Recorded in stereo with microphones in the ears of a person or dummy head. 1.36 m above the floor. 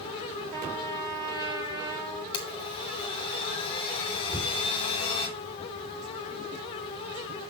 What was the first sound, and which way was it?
A trumpet, 25° right (ahead or behind).